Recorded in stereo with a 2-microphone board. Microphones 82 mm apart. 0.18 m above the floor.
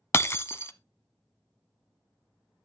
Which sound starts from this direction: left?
Breaking glass, at 0.1 s.